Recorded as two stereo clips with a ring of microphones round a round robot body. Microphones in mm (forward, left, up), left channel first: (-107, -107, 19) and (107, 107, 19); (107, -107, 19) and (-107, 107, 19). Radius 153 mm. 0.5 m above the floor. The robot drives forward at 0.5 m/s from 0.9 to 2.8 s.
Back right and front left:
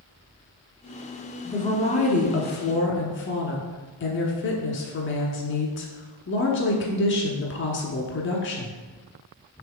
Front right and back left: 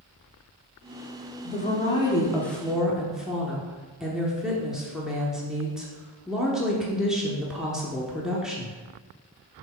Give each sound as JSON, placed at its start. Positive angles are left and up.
{"t": 1.4, "sound": "a woman speaking", "azimuth_deg": -70, "distance_m": 1.0}